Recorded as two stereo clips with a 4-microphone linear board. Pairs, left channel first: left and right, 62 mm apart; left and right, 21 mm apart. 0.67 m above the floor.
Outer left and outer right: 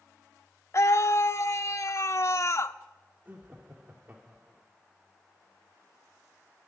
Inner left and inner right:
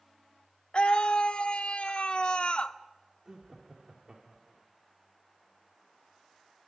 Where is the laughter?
30° right (ahead or behind), 1.8 m.